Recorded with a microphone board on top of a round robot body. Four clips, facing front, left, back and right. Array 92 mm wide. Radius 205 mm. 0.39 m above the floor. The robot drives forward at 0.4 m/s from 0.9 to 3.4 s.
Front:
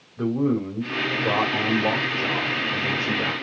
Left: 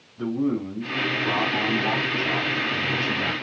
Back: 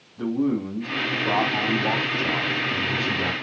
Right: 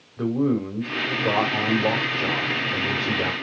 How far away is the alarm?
No alarm in this recording.